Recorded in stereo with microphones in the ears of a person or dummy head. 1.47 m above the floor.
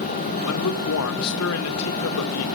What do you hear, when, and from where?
0.4 s a man speaking: 80° left, 1.6 m